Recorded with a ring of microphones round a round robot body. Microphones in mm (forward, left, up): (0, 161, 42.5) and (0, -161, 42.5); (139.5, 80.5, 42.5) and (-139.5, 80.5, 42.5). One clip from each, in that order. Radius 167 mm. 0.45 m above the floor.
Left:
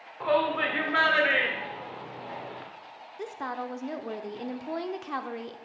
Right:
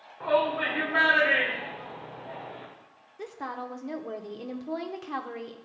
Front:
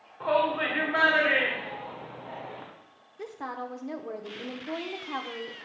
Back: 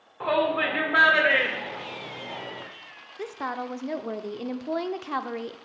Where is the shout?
140° left, 1.9 m.